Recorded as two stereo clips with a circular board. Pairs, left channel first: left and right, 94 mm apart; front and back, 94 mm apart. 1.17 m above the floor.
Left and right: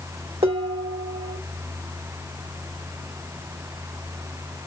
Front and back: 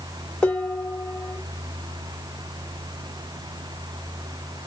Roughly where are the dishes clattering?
Right.